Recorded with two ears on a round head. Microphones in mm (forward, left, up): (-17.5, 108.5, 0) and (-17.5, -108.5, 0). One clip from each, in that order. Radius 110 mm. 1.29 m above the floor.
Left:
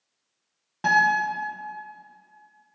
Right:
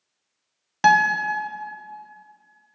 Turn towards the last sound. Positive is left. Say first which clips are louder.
# right 3 dB
turn(degrees=-70)  # may be behind; listen again after turning